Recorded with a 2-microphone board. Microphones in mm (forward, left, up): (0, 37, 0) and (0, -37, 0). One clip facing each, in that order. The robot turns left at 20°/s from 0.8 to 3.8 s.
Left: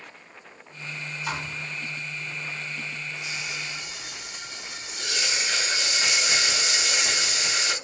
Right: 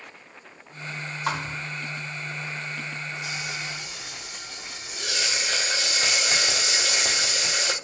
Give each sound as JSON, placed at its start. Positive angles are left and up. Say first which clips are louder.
{"t": 1.3, "sound": "a thud", "louder": "right 4 dB", "side_deg": -65, "distance_m": 0.8}
{"t": 3.2, "sound": "frying", "louder": "right 1 dB", "side_deg": -55, "distance_m": 1.9}